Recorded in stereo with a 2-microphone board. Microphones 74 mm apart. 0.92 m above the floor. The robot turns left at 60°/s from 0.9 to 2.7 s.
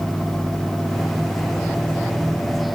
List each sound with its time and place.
Only background noise.